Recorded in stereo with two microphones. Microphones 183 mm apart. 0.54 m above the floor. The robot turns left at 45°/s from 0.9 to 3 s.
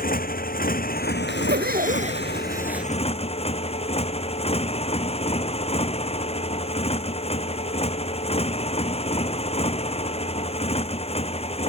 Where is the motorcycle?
125° left; by 11.7 s 35° left.